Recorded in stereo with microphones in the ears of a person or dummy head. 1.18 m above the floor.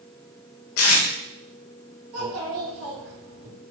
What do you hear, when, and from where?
0.8 s tape being pulled: 80° left, 0.9 m
2.1 s a child speaking: 75° right (ahead or behind), 1.8 m